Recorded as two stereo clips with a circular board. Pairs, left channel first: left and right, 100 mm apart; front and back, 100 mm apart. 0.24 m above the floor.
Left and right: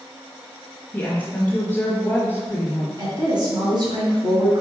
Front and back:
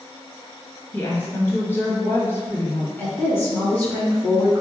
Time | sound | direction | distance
0.9 | a woman speaking | 35° left | 1.0 m
3.0 | a woman speaking | 65° right | 1.9 m